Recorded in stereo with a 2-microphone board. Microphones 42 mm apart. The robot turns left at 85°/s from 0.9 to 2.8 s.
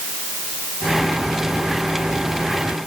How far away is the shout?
I don't hear a shout.